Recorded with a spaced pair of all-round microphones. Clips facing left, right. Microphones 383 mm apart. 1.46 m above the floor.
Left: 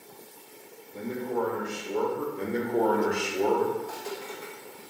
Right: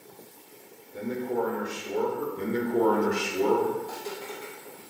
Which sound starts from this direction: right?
Footsteps, at 3.8 s.